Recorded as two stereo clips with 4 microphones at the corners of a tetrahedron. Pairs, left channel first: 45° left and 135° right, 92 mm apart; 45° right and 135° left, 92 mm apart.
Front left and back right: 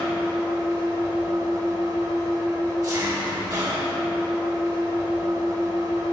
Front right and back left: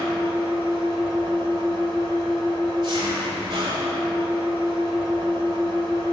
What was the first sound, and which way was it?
An engine running, 175° left.